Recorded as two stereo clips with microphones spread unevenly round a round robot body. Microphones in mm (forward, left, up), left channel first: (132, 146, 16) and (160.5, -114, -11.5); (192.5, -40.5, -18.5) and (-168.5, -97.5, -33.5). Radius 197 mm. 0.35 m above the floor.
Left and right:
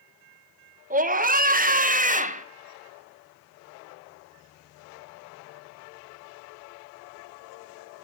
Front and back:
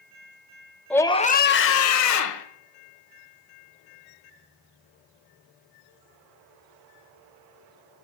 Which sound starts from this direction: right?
A scream, at 0.9 s.